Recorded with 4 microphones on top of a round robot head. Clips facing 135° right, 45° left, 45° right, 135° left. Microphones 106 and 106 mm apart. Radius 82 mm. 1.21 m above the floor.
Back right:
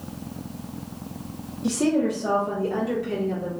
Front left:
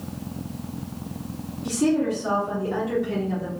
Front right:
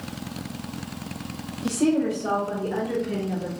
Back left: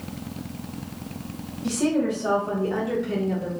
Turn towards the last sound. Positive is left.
turn(degrees=180)